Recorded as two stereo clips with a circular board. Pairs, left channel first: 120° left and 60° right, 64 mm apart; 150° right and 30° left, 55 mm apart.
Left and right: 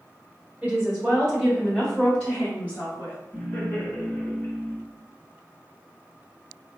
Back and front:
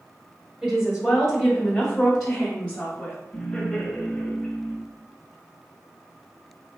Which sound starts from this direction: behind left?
Laughter, at 3.3 s.